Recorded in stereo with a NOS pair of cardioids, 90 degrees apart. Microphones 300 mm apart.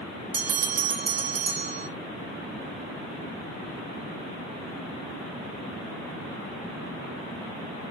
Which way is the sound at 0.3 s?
40° right.